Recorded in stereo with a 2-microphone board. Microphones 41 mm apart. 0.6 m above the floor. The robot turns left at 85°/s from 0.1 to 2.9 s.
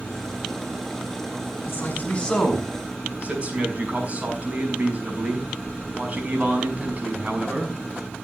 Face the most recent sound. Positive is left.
turn(degrees=-35)